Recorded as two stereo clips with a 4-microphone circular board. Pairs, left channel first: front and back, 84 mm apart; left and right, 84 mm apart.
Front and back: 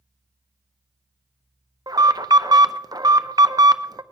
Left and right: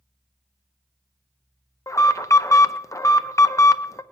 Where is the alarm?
140° left, 0.6 m.